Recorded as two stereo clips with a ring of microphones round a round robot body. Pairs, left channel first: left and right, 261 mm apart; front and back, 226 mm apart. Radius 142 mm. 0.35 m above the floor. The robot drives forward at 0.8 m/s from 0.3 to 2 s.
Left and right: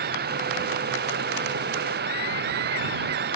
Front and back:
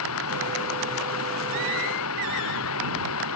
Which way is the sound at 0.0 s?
35° right.